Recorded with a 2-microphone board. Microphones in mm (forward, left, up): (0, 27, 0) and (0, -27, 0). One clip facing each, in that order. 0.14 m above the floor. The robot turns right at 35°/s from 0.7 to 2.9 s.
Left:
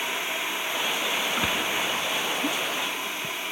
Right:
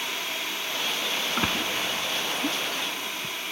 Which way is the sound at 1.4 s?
10° right (ahead or behind).